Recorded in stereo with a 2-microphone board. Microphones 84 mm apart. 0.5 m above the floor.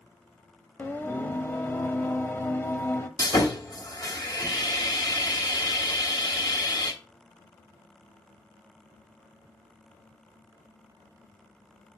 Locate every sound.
0.8 s singing: 25° left (ahead or behind), 0.7 m
3.2 s sawing: 50° left (ahead or behind), 1.4 m